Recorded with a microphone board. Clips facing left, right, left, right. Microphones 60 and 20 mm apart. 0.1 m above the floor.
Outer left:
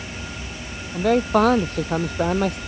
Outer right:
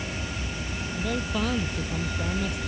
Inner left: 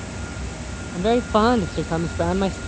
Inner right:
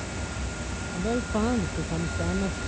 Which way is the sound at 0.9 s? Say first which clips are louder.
Outer left 12 dB, inner left 9 dB; 60° left (ahead or behind).